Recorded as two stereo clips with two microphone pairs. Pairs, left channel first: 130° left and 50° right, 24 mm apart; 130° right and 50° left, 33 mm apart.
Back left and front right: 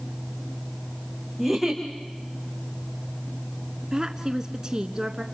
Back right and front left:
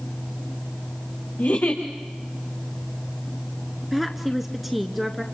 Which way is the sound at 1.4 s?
145° right.